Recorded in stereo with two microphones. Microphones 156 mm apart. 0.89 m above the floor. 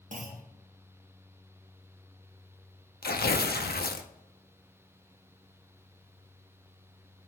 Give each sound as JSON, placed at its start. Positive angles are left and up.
{"t": 0.1, "sound": "a clunk", "side_deg": -55, "distance_m": 1.1}
{"t": 3.0, "sound": "tearing paper", "side_deg": 90, "distance_m": 0.6}